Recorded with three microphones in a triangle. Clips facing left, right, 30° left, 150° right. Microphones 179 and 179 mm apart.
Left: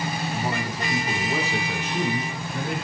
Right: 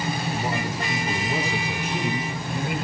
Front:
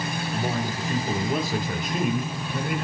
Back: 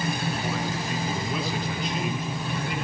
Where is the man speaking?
15° right, 7.5 m; by 2.9 s 5° right, 9 m.